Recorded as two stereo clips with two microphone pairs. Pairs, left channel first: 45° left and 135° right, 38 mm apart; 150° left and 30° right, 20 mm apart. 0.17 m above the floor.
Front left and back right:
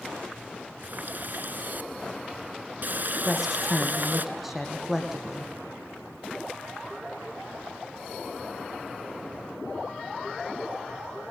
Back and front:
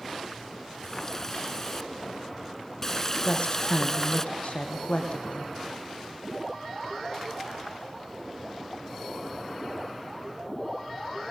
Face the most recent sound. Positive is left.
turn(degrees=140)